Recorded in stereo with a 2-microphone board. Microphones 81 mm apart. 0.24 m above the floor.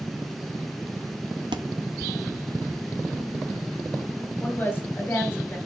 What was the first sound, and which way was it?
A thud, 80° right.